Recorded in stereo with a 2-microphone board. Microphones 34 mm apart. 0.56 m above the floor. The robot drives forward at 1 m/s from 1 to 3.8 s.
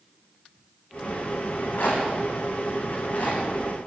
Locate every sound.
1.5 s a rattle: 80° left, 8.5 m; by 3.4 s 65° left (ahead or behind), 9 m